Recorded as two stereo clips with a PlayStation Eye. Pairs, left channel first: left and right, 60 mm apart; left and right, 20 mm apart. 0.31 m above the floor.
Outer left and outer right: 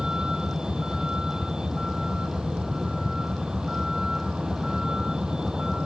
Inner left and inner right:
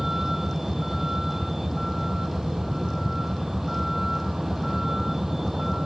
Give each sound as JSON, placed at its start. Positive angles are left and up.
{"t": 0.0, "sound": "a vehicle", "side_deg": -10}